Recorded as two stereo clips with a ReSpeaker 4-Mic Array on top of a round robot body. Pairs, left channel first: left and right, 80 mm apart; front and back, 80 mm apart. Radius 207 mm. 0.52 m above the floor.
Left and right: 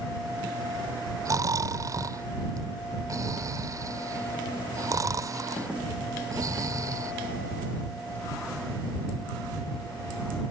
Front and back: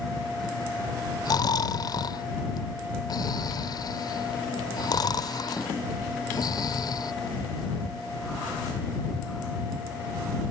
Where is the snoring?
40° right.